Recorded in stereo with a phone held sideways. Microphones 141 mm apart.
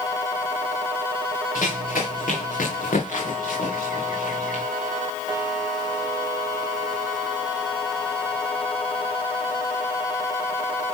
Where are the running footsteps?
75° left (ahead or behind), 7.5 m.